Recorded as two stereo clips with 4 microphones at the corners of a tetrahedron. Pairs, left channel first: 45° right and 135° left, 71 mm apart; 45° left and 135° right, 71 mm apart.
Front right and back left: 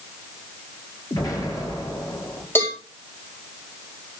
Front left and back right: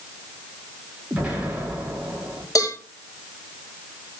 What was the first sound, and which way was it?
An explosion, 65° right.